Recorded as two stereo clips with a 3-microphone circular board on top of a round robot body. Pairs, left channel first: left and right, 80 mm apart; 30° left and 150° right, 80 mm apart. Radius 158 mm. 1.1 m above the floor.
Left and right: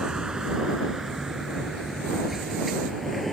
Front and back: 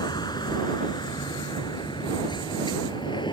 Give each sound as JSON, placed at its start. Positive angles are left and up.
{"t": 0.0, "sound": "a vehicle", "azimuth_deg": -5}